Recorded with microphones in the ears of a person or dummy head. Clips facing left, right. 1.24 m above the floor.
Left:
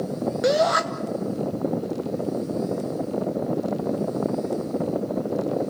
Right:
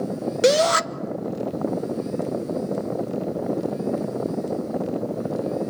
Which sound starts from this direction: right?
A shout, at 0.4 s.